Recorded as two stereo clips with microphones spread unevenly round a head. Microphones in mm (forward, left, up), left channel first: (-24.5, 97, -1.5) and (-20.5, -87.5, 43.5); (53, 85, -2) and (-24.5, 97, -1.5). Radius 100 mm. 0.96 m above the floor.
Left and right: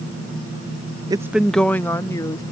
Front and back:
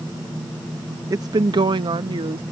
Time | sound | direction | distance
1.1 | a woman speaking | 165° right | ?